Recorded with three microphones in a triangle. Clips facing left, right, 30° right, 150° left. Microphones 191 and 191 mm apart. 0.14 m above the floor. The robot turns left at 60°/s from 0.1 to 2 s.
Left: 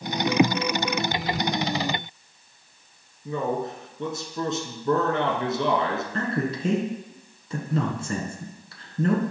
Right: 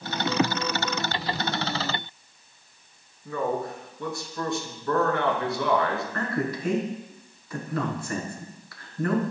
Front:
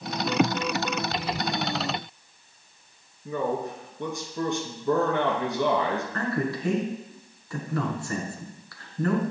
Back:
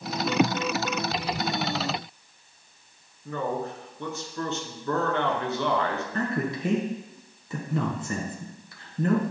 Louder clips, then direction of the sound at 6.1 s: Left 2 dB, even; 110° left.